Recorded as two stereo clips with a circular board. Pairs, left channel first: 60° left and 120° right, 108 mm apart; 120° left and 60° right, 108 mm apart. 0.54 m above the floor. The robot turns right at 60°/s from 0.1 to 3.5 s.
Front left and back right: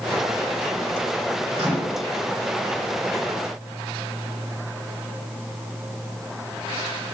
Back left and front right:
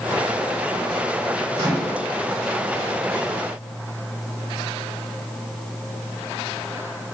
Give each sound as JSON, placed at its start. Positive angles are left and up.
{"t": 1.5, "sound": "a microwave", "azimuth_deg": -100, "distance_m": 1.4}